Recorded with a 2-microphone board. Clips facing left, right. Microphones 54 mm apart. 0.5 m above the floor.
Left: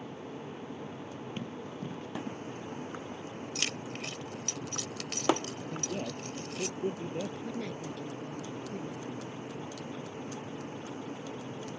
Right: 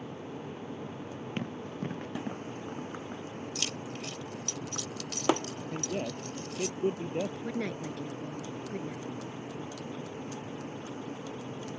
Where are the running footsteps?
60° right (ahead or behind); by 3.2 s 50° right (ahead or behind).